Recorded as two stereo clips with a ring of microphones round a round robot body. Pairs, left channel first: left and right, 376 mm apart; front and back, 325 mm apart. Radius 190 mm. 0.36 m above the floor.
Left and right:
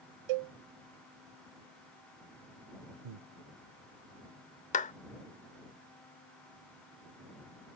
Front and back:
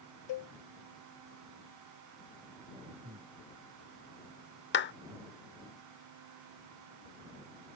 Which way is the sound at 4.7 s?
30° left.